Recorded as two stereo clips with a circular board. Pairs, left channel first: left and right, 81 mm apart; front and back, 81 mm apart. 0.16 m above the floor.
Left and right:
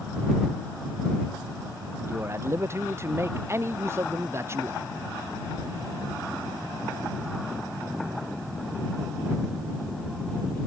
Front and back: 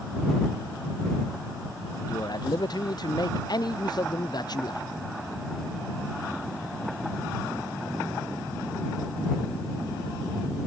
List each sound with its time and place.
2.1 s a man speaking: 30° right